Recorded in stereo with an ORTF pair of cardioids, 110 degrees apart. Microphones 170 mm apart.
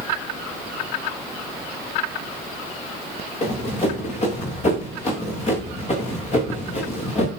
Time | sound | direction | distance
3.4 | running footsteps | 45° left | 9 m